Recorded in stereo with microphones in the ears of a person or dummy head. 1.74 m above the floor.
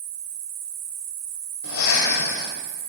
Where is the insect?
50° right (ahead or behind), 1.4 m.